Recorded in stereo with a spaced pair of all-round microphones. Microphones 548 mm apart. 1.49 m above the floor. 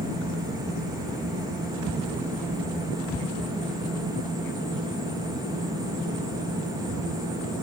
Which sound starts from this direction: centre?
A fan, at 0.0 s.